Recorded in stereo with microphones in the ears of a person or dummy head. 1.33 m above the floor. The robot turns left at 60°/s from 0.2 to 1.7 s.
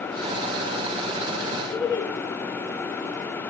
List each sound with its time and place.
1.7 s laughter: 25° left (ahead or behind), 3.5 m